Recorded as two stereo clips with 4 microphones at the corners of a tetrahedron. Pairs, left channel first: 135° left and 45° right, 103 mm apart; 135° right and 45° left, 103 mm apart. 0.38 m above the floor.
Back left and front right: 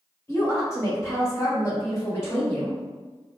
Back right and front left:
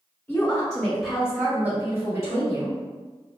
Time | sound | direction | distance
0.3 | a woman speaking | 165° left | 1.4 m